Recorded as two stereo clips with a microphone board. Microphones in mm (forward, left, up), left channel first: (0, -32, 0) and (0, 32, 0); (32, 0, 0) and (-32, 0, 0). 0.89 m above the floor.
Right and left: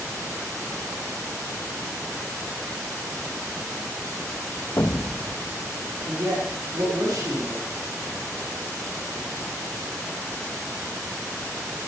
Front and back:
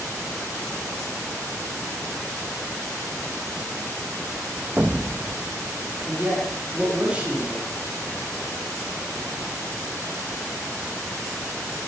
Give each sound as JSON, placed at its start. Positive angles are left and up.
{"t": 4.8, "sound": "an explosion", "azimuth_deg": -120, "distance_m": 0.9}
{"t": 6.1, "sound": "a man speaking", "azimuth_deg": 110, "distance_m": 8.0}